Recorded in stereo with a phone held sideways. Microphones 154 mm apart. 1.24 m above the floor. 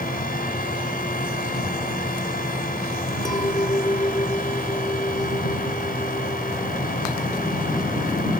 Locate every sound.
0.0 s a fan: 70° left (ahead or behind)
3.2 s a clink: 25° left (ahead or behind)